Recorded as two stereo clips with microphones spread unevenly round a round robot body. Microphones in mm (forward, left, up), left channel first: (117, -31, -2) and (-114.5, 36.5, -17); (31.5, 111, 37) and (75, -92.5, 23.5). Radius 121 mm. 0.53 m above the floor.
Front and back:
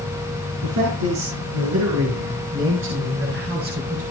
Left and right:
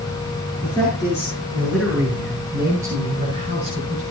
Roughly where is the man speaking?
Behind.